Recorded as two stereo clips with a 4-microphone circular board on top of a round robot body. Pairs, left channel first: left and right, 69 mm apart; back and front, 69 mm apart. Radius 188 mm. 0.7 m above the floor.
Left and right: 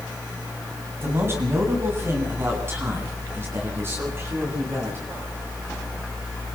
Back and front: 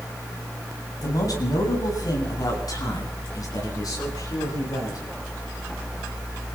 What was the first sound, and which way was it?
A man speaking, 145° right.